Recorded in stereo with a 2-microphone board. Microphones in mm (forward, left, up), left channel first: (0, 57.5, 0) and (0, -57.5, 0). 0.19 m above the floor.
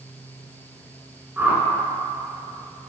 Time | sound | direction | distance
1.4 | a whoosh | 15° right (ahead or behind) | 1.5 m